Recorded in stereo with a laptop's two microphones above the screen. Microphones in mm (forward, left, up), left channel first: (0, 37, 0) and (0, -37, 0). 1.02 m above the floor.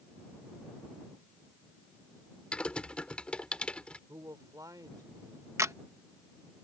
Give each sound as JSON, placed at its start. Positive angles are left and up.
{"t": 2.5, "sound": "typing on a keyboard", "side_deg": 15}
{"t": 4.1, "sound": "a man speaking", "side_deg": -60}
{"t": 5.6, "sound": "a camera shutter", "side_deg": -45}